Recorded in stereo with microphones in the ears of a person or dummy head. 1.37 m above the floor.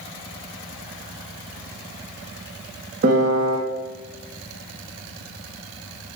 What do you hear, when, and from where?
3.0 s a piano: 50° right (ahead or behind), 0.7 m